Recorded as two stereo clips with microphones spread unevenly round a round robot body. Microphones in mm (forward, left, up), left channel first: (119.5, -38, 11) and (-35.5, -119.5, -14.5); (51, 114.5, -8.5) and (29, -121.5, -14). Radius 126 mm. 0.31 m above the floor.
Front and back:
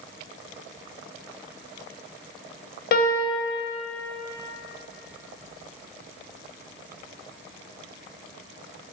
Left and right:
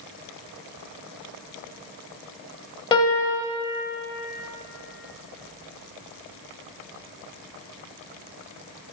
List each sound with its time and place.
2.9 s a piano: 15° left, 1.0 m